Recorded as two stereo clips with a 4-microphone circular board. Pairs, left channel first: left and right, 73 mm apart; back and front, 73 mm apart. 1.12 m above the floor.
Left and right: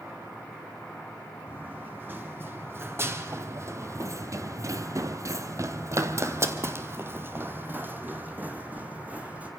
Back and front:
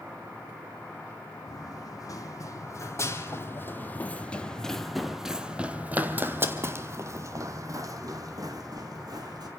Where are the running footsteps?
155° right, 2.5 m; by 9.5 s 20° right, 3.5 m.